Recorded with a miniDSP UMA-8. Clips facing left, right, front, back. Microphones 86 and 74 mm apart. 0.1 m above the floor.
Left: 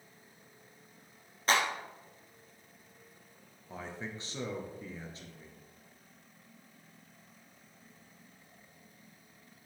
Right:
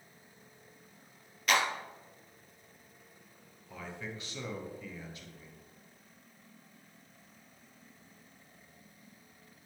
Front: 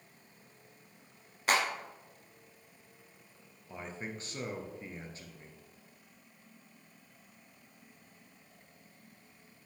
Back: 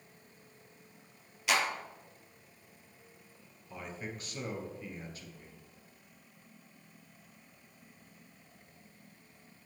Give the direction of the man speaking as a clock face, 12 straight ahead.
10 o'clock.